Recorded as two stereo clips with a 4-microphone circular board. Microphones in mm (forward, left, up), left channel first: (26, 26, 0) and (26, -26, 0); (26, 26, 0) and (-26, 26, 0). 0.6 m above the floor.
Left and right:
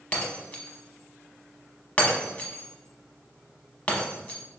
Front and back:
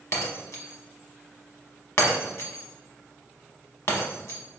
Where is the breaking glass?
25° left, 0.9 m.